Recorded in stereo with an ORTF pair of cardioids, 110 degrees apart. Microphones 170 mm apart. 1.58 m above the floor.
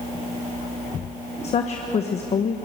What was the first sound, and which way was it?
A woman speaking, 40° left.